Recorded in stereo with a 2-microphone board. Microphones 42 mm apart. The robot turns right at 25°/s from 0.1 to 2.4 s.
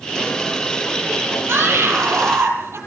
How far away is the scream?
About 5.5 m.